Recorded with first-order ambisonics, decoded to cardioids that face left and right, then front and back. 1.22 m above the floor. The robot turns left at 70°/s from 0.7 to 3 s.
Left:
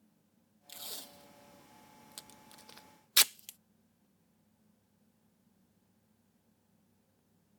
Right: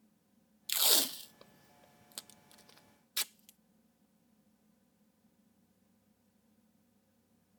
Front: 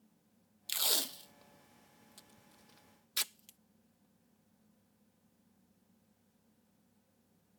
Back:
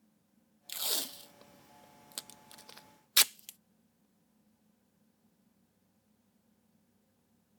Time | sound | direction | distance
0.7 | tape being pulled | 65° right | ?